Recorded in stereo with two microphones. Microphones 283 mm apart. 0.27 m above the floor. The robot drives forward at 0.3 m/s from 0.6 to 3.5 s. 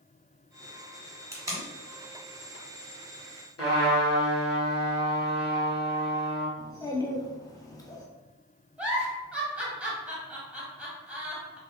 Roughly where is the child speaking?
Centre.